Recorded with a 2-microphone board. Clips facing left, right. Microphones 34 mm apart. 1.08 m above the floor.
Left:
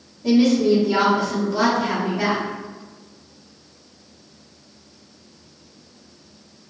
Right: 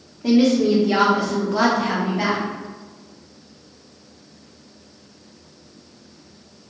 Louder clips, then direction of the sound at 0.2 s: Even; 75° right (ahead or behind).